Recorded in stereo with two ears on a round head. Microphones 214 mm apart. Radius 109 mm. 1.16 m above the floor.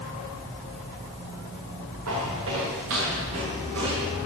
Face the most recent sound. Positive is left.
turn(degrees=-55)  # may be behind; listen again after turning